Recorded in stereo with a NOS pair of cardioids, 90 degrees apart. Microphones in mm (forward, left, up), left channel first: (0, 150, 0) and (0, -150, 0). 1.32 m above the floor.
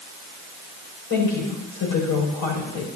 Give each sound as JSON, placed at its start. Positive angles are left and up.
{"t": 1.1, "sound": "a woman speaking", "azimuth_deg": 65, "distance_m": 6.0}